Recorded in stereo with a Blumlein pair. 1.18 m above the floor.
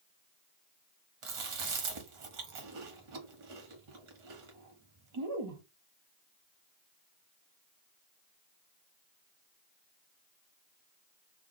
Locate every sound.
1.2 s chewing: 45° right, 0.9 m